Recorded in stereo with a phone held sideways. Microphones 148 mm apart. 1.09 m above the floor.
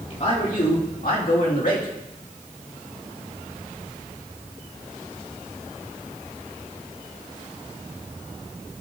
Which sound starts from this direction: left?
A man speaking, at 0.1 s.